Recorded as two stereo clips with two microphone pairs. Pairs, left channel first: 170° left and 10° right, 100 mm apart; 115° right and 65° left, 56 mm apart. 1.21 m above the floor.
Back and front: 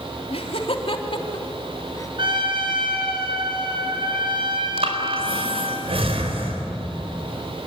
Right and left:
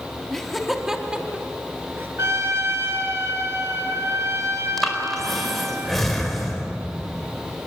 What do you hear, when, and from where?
0.3 s laughter: 160° left, 3 m; by 2.1 s 115° left, 3 m
2.2 s a trumpet: 25° left, 4 m
4.8 s breathing: 30° right, 4 m